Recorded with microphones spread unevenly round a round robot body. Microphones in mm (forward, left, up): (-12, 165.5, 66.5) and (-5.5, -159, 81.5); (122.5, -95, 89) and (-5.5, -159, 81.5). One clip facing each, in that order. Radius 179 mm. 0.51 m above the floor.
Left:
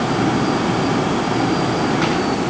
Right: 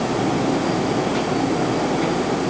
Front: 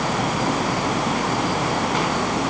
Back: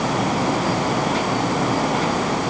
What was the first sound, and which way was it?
Only background noise.